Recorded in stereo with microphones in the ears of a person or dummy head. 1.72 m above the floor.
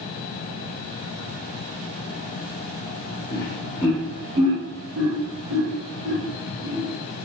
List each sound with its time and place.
3.3 s laughter: 30° left (ahead or behind), 0.7 m; by 6.9 s 75° right (ahead or behind), 1.8 m